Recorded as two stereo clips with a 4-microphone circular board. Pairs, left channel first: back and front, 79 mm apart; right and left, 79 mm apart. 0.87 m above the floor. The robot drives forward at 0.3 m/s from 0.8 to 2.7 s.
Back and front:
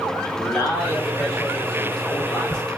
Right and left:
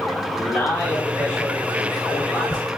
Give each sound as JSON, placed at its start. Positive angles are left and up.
{"t": 0.3, "sound": "a man speaking", "azimuth_deg": -150, "distance_m": 1.7}